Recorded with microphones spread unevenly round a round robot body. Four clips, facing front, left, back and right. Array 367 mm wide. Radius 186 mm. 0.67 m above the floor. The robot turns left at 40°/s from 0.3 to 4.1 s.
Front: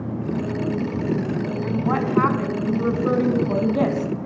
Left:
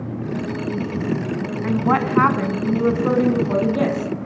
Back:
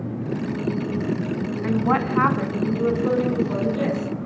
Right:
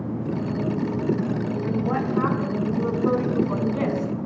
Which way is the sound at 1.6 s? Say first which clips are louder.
Left 8 dB, back 3 dB; 125° left.